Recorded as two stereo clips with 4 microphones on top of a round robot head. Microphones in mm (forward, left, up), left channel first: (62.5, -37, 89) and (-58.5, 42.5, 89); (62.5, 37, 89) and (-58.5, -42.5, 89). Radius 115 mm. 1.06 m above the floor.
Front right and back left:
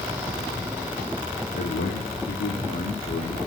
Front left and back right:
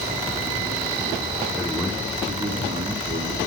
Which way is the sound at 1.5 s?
55° right.